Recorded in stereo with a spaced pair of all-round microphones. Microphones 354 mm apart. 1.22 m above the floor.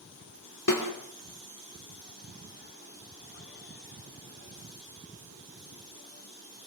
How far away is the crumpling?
I don't hear crumpling.